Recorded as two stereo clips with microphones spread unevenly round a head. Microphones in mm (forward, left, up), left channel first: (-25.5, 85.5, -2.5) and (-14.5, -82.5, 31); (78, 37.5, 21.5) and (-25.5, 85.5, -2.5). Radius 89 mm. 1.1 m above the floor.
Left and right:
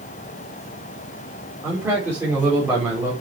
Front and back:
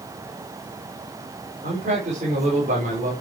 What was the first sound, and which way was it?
A man speaking, 165° right.